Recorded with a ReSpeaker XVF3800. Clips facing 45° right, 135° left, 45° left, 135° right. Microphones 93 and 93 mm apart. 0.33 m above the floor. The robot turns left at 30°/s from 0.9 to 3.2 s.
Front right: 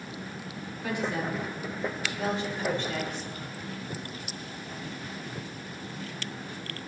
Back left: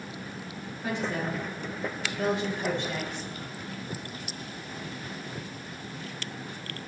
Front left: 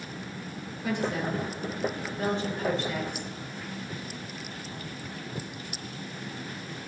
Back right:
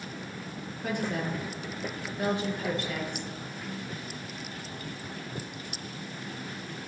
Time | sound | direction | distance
0.8 | a woman speaking | 165° right | 6.5 m